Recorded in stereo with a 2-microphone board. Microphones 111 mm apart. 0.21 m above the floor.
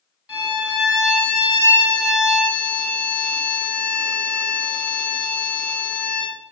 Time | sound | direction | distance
0.3 | a violin | 5° right (ahead or behind) | 2.0 m